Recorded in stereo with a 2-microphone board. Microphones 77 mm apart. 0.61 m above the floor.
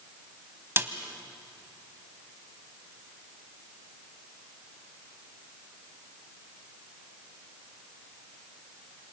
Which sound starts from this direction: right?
A snare drum, at 0.8 s.